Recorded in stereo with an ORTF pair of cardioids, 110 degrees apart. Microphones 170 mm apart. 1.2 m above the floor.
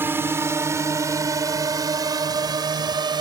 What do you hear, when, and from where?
0.0 s a drone: 15° right; by 3.2 s 25° right